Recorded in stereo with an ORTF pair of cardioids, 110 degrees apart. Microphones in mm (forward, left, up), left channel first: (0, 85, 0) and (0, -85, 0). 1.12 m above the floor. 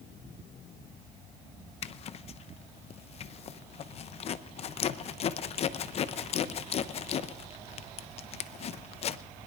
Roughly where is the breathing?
No breathing in this recording.